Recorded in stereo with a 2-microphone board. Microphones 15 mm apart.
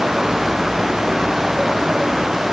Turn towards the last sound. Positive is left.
No sound to turn to.